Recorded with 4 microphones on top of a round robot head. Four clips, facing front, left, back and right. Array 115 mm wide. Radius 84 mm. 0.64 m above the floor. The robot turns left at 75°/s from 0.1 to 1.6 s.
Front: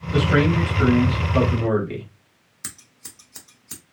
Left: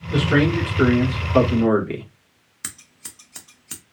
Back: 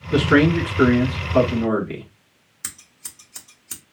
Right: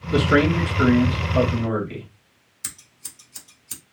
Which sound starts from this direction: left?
Scissors, at 2.6 s.